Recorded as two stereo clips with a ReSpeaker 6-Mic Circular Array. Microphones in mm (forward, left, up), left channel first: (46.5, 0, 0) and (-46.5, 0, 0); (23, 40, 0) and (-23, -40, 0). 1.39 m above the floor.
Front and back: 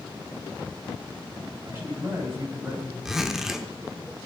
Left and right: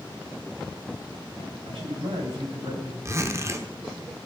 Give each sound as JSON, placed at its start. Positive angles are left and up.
{"t": 1.6, "sound": "a man speaking", "azimuth_deg": -125, "distance_m": 9.0}
{"t": 3.0, "sound": "a zipper", "azimuth_deg": -100, "distance_m": 1.1}